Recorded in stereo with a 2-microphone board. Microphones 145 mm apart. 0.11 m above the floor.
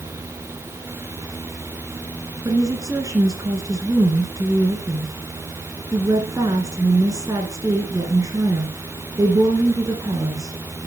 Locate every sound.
2.5 s a woman speaking: 25° right (ahead or behind), 1.7 m